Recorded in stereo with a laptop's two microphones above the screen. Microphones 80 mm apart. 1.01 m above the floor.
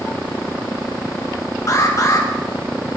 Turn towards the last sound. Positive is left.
turn(degrees=40)  # may be behind; listen again after turning